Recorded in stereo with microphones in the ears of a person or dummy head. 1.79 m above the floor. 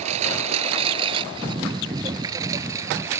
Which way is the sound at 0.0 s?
35° right (ahead or behind).